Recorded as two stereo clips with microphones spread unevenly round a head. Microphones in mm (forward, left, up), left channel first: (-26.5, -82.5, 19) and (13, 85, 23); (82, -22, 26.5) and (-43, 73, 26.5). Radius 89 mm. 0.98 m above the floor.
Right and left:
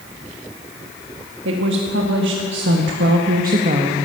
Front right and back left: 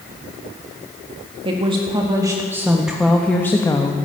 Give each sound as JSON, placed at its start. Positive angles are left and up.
{"t": 1.4, "sound": "a woman speaking", "azimuth_deg": 90, "distance_m": 1.6}